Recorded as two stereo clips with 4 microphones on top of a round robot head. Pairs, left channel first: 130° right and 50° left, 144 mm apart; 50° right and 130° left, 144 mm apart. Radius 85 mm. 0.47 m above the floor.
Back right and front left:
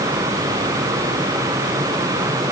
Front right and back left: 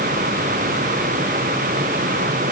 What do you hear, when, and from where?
Only background noise.